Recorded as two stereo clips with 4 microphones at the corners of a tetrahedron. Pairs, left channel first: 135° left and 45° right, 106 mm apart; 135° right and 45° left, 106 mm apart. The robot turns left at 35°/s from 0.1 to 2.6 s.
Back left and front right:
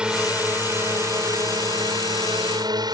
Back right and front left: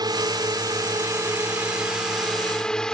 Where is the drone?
30° left; by 3.0 s 55° right.